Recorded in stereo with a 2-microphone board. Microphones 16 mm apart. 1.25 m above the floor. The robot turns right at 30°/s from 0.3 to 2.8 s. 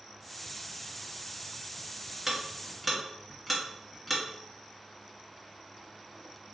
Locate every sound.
2.3 s ticking: 15° right (ahead or behind), 1.7 m; by 4.2 s centre (ahead or behind), 1.7 m